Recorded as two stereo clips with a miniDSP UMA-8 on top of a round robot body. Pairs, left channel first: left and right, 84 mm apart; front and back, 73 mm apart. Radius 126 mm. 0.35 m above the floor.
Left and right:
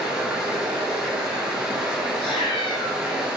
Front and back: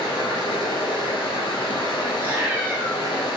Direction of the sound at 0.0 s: 10° right.